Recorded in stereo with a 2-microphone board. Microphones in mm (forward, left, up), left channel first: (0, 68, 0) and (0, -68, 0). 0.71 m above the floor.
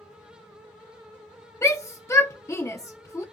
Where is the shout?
20° left (ahead or behind), 0.6 m.